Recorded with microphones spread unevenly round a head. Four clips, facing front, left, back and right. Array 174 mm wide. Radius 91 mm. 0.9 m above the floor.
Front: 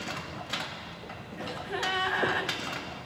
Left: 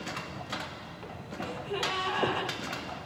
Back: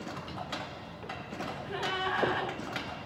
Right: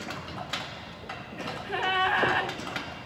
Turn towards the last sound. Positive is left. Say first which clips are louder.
# right 2 dB, front 3 dB
turn(degrees=-60)